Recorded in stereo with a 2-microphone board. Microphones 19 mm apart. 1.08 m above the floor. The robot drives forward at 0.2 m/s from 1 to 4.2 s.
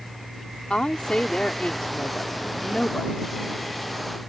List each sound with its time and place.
0.7 s a woman speaking: 75° left (ahead or behind); by 3.2 s 85° left